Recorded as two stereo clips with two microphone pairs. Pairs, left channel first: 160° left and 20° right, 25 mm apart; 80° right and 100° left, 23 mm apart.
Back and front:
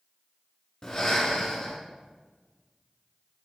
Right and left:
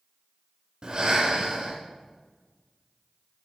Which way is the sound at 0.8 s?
130° left.